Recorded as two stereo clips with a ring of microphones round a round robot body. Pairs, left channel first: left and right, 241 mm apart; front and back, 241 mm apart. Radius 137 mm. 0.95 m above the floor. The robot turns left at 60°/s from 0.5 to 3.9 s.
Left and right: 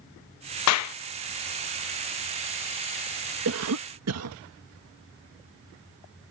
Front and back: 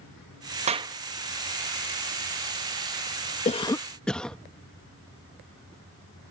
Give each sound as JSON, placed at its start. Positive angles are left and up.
{"t": 0.7, "sound": "a clap", "azimuth_deg": 115}
{"t": 3.5, "sound": "a cough", "azimuth_deg": -60}